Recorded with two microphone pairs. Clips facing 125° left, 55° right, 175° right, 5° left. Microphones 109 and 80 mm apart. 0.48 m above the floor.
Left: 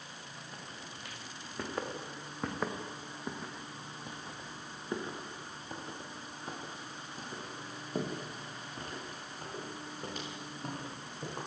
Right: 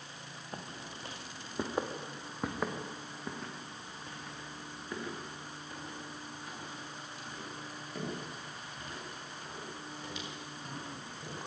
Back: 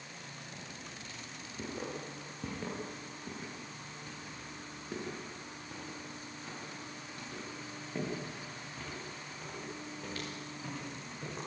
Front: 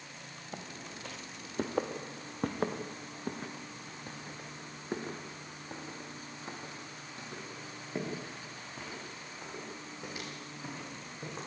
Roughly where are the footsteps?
Ahead.